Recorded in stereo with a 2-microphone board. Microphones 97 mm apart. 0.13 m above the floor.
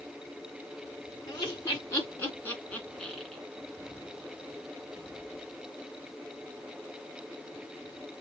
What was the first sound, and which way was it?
Laughter, 30° left (ahead or behind).